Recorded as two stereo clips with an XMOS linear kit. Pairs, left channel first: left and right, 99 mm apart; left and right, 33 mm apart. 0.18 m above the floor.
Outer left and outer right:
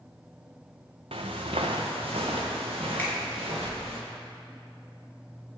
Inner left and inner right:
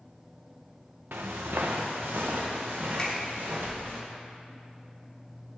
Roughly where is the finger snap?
Centre.